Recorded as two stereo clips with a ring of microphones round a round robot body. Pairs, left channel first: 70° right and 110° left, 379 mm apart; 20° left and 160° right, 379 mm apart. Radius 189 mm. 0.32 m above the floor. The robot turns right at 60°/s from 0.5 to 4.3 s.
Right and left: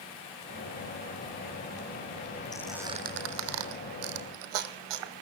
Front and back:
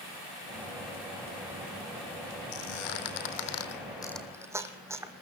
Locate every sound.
2.5 s a squeak: 10° left, 1.8 m; by 5.1 s 120° left, 1.8 m